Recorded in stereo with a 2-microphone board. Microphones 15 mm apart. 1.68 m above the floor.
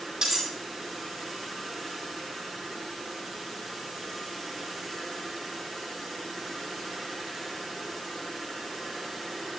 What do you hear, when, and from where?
0.2 s cutlery clinking: 55° right (ahead or behind), 4 m